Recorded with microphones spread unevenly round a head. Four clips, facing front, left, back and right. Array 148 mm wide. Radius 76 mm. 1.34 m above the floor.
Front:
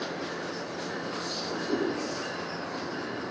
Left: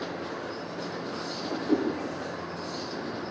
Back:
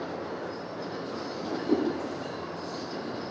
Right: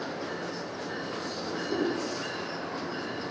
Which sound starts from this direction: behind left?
A whoosh, at 1.4 s.